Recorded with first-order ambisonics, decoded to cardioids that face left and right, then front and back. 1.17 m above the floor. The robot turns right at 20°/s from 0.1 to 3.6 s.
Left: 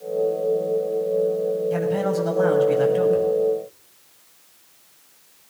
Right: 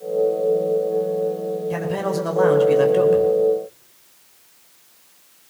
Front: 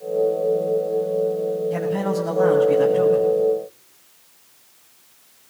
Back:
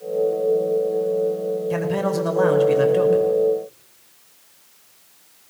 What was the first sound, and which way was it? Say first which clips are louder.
A man speaking: left 1 dB, back 1 dB; 150° right.